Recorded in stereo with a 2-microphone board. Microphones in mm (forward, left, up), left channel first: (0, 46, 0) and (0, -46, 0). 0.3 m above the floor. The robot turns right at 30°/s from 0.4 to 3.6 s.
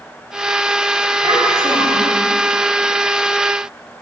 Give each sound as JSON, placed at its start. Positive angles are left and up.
{"t": 1.2, "sound": "a child speaking", "side_deg": -70, "distance_m": 3.5}